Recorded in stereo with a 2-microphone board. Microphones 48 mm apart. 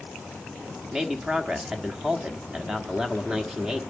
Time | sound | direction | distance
0.9 | a man speaking | 15° right (ahead or behind) | 1.1 m